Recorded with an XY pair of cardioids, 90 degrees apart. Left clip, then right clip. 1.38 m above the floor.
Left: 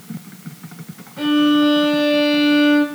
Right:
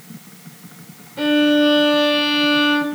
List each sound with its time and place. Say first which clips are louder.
1.2 s a violin: even; 30° right, 3 m